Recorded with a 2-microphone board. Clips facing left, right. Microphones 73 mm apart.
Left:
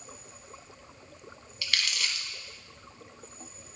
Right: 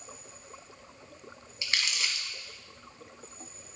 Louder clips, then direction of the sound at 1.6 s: Even; 25° right (ahead or behind).